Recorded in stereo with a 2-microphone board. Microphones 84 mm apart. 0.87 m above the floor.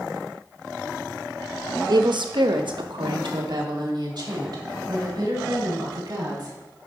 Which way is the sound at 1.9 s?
55° right (ahead or behind).